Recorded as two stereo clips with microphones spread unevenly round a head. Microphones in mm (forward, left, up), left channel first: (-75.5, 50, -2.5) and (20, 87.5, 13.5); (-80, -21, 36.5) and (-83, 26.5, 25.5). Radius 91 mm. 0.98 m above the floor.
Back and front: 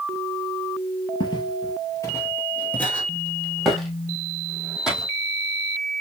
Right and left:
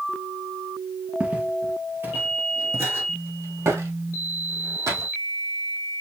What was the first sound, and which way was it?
Footsteps, 165° left.